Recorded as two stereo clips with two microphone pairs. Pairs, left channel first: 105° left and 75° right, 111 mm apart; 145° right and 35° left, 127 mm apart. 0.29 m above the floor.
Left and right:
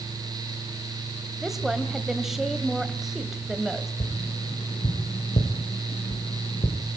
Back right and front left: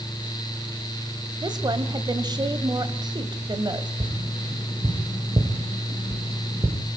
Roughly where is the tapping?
Left.